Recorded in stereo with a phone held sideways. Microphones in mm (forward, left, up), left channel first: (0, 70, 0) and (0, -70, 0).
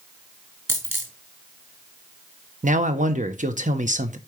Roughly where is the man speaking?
Right.